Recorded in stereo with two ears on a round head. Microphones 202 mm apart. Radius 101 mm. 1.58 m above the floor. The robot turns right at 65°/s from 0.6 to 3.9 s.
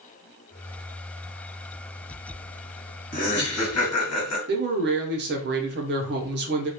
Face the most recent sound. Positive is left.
turn(degrees=-50)  # may be behind; listen again after turning